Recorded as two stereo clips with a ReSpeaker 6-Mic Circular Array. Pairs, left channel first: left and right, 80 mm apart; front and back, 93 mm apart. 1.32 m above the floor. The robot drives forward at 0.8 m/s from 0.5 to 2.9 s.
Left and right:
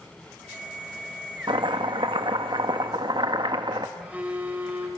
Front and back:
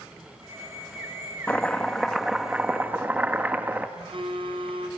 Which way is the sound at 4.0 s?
160° right.